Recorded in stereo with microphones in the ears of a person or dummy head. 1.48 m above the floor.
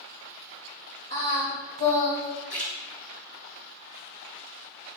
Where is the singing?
30° left (ahead or behind), 2.5 m.